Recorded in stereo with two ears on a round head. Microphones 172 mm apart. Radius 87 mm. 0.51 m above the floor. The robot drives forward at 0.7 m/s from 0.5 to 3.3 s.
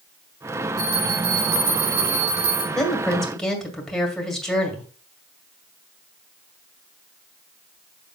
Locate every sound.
0.8 s a bell: 45° right (ahead or behind), 4 m; by 2.6 s 60° right (ahead or behind), 3.5 m
2.8 s a woman speaking: 5° left (ahead or behind), 1.8 m; by 4.9 s centre (ahead or behind), 2 m